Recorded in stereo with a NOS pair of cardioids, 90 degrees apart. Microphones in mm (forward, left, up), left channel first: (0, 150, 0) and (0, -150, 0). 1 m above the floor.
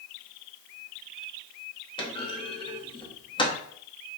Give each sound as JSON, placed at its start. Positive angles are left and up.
{"t": 2.0, "sound": "a clunk", "azimuth_deg": 15, "distance_m": 0.7}